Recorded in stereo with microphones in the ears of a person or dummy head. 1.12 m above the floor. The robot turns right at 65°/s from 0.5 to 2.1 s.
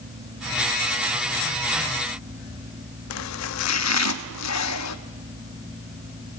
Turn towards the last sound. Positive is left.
turn(degrees=85)